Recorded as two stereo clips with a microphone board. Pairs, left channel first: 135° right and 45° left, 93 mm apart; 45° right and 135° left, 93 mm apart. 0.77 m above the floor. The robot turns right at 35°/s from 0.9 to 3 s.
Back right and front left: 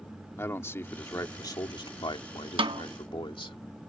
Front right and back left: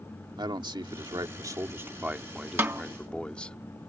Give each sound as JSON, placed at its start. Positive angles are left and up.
{"t": 0.4, "sound": "a man speaking", "azimuth_deg": 165}
{"t": 2.6, "sound": "a snare drum", "azimuth_deg": 65}